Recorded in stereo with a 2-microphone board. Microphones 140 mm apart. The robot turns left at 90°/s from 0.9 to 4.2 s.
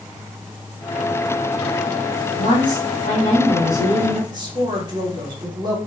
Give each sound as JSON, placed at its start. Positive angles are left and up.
{"t": 2.4, "sound": "a woman speaking", "azimuth_deg": 115, "distance_m": 1.3}
{"t": 4.3, "sound": "a woman speaking", "side_deg": -30, "distance_m": 1.0}